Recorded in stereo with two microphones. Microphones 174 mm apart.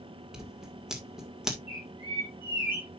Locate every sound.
0.3 s scissors: 5° right (ahead or behind), 1.8 m
1.7 s a bird: 30° left (ahead or behind), 4.5 m